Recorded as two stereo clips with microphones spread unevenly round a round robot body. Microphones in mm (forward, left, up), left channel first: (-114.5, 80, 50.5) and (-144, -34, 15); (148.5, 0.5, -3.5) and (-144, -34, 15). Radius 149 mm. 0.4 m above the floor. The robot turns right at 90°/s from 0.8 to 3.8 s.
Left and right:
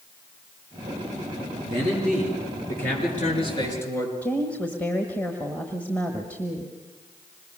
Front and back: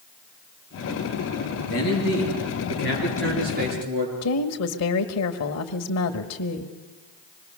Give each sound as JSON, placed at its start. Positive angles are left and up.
{"t": 1.7, "sound": "a man speaking", "azimuth_deg": -50, "distance_m": 7.0}
{"t": 4.2, "sound": "a woman speaking", "azimuth_deg": -15, "distance_m": 1.4}